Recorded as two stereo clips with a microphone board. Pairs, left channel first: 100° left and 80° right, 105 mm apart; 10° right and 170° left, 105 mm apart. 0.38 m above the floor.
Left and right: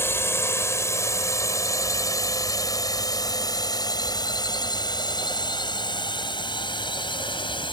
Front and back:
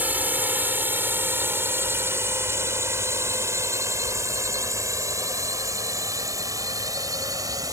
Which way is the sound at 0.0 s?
120° left.